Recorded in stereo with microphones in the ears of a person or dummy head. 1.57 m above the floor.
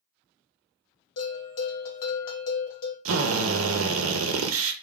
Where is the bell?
50° left (ahead or behind), 1.0 m.